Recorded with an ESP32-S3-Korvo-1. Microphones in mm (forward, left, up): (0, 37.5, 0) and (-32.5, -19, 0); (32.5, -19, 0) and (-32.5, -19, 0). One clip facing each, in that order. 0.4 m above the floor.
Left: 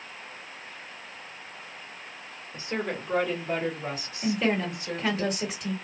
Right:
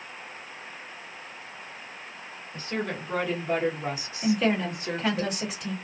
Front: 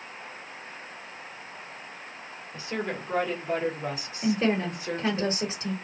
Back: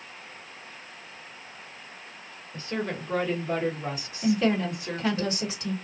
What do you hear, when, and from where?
2.5 s a woman speaking: 50° left, 1.3 m; by 5.2 s 85° right, 1.9 m
4.2 s a woman speaking: 30° right, 1.6 m